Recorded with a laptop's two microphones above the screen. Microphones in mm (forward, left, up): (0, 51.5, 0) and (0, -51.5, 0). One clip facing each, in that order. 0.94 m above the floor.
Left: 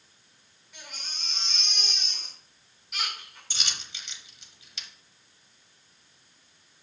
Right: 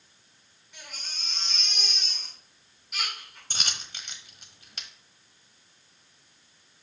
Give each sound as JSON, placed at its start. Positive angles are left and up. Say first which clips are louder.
{"t": 0.7, "sound": "a baby crying", "louder": "even", "side_deg": 0, "distance_m": 2.5}
{"t": 3.5, "sound": "a dropped coin", "louder": "right 2 dB", "side_deg": -50, "distance_m": 1.1}